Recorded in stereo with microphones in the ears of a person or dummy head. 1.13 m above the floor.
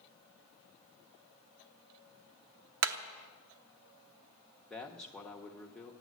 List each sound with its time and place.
2.8 s hammering: 75° right (ahead or behind), 0.9 m
4.7 s a man speaking: centre (ahead or behind), 1.2 m